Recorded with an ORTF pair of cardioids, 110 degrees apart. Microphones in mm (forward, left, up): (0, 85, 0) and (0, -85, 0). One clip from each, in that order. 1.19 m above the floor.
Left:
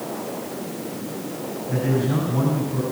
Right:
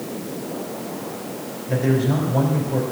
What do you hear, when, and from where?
1.7 s a man speaking: 70° right, 5 m